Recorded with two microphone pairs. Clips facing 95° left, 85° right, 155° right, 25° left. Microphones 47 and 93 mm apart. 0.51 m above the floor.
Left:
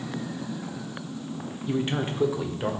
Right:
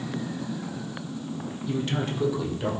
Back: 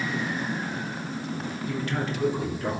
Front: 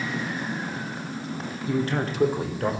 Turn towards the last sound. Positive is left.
turn(degrees=25)